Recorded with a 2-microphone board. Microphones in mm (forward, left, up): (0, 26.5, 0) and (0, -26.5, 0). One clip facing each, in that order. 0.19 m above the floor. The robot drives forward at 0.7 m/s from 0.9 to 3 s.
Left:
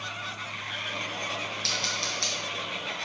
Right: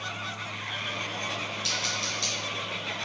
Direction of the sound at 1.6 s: 65° left (ahead or behind).